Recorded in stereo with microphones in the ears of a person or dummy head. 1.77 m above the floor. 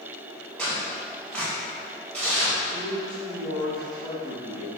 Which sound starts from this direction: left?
A man speaking, at 2.7 s.